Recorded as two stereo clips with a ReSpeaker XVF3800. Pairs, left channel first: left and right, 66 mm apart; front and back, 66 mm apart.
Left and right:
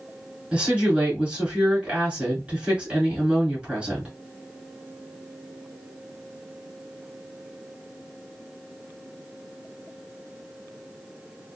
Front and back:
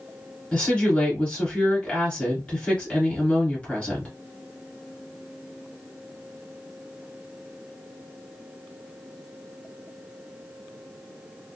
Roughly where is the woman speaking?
Ahead right.